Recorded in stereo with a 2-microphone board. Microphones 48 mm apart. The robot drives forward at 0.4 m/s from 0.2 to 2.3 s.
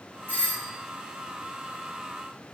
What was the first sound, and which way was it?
A doorbell, 45° left (ahead or behind).